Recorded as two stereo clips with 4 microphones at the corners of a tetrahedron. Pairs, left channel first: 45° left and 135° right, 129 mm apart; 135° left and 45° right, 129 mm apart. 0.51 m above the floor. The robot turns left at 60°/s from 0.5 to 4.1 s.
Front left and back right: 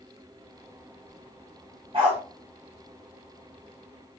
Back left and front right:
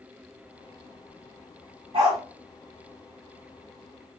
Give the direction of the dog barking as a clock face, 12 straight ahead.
3 o'clock.